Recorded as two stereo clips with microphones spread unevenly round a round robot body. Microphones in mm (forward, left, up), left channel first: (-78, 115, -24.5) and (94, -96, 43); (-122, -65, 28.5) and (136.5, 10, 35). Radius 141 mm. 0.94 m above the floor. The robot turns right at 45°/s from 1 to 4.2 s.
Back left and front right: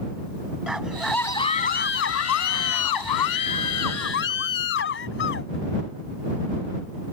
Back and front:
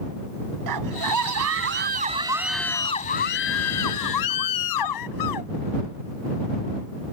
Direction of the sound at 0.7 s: 35° left.